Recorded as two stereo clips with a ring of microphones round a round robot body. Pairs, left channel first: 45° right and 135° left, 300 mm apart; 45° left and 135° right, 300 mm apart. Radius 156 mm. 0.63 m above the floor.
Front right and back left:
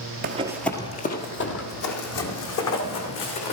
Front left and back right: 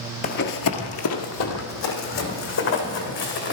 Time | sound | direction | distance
0.2 | running footsteps | 95° left | 0.7 m